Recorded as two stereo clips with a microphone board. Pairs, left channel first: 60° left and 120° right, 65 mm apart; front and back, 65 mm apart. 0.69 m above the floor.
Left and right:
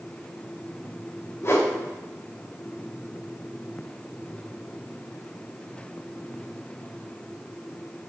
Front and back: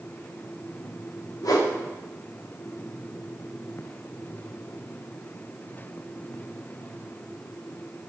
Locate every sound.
1.4 s a whoosh: 15° left, 0.5 m